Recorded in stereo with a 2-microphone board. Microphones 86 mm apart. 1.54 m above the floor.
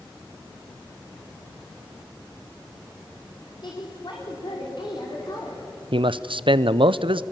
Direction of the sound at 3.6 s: 65° left (ahead or behind).